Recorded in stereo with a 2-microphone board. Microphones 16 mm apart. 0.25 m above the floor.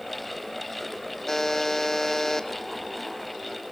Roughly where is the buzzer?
Left.